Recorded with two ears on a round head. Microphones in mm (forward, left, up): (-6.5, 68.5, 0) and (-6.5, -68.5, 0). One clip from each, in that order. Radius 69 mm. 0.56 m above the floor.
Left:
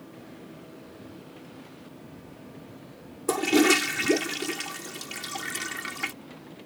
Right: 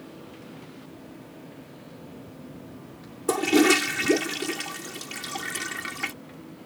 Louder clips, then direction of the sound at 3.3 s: Right 1 dB; 5° left (ahead or behind).